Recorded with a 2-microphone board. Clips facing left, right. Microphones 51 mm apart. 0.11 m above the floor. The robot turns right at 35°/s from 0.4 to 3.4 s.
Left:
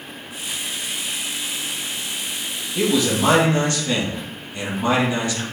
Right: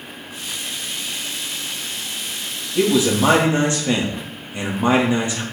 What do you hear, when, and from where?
2.8 s a man speaking: centre (ahead or behind), 3 m; by 5.4 s 20° right (ahead or behind), 3 m